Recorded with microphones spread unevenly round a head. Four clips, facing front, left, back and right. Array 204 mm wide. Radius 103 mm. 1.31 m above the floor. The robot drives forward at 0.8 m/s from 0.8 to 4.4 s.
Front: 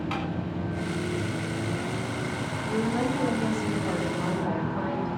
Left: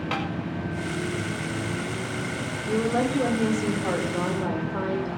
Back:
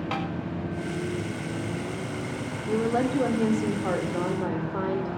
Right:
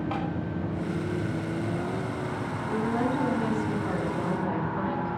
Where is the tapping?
115° left, 6 m.